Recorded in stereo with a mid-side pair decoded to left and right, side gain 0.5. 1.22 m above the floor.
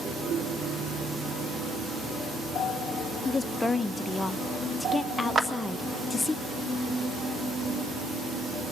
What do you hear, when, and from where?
3.2 s a woman speaking: 20° left, 0.6 m
5.3 s a clap: 25° right, 1.4 m